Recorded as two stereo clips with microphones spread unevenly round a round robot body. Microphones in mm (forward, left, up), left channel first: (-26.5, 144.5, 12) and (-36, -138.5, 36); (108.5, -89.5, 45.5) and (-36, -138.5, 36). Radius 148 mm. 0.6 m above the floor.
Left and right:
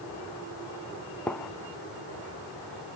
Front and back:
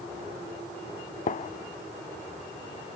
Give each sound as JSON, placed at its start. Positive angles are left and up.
{"t": 1.3, "sound": "a gunshot", "azimuth_deg": 0, "distance_m": 0.7}